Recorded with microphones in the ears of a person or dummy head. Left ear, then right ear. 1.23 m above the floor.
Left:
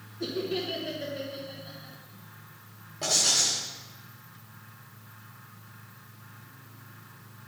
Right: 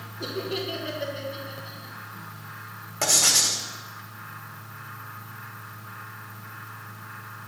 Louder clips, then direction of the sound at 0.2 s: Right 1 dB; centre (ahead or behind).